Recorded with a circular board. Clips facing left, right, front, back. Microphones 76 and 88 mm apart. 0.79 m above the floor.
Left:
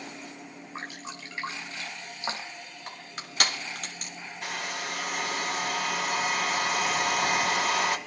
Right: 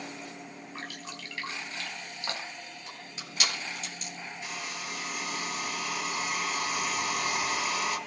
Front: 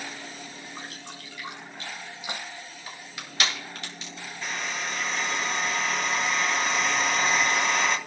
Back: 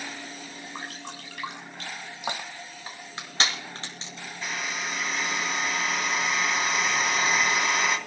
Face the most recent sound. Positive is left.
turn(degrees=95)